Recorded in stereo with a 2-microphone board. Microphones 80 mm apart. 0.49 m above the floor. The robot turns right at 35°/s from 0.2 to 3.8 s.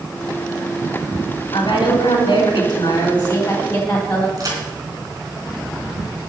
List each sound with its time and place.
1.5 s a woman speaking: 80° left, 3.5 m; by 4.3 s 160° left, 3.5 m
4.4 s a crack: 45° right (ahead or behind), 3 m